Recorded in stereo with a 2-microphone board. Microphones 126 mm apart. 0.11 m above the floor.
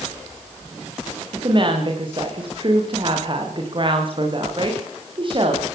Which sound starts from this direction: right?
A woman speaking, at 1.3 s.